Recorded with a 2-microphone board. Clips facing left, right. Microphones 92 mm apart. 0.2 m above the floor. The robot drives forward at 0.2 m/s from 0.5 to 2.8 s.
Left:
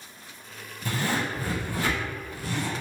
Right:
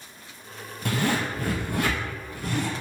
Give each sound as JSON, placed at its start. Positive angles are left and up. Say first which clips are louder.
{"t": 0.8, "sound": "a zipper", "louder": "right 2 dB", "side_deg": -75, "distance_m": 1.0}